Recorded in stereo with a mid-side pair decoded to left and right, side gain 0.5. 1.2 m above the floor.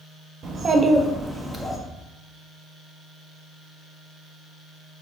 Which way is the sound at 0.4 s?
50° right.